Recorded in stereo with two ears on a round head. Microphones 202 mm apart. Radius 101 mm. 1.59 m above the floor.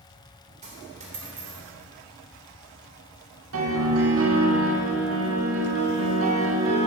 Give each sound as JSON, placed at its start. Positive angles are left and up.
{"t": 0.6, "sound": "a dropped coin", "side_deg": -35, "distance_m": 3.0}
{"t": 3.5, "sound": "a piano", "side_deg": -65, "distance_m": 2.0}